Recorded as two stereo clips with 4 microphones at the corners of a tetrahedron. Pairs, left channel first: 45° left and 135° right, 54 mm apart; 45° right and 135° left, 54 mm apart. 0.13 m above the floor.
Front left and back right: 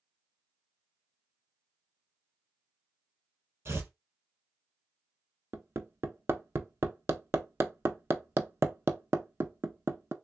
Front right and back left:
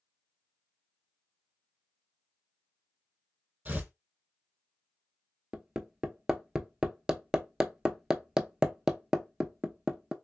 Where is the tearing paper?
170° right, 1.5 m.